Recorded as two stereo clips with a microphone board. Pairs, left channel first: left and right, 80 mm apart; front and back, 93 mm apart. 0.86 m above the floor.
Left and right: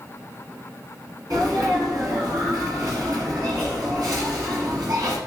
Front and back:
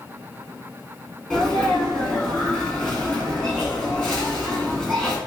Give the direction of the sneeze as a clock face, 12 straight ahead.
2 o'clock.